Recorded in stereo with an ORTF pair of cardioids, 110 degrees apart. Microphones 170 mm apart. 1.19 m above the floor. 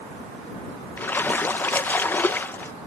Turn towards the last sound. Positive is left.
turn(degrees=10)